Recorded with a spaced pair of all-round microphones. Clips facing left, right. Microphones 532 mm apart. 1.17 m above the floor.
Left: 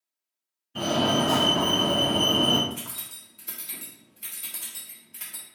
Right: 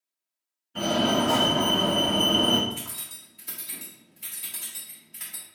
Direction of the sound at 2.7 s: 20° right (ahead or behind).